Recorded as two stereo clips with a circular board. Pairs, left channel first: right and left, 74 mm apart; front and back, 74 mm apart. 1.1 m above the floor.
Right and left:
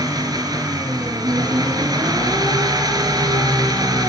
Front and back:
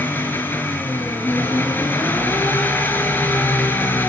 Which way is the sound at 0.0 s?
60° left.